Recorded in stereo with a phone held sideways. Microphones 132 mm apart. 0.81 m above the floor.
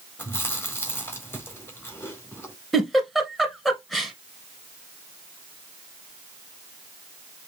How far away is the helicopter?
I don't hear a helicopter.